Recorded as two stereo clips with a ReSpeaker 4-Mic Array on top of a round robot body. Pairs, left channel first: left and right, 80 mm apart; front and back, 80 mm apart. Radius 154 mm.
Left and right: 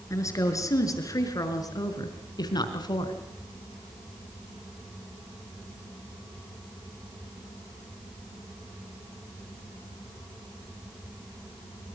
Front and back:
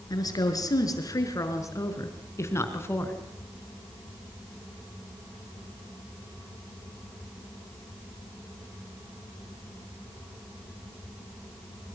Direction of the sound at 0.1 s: 40° left.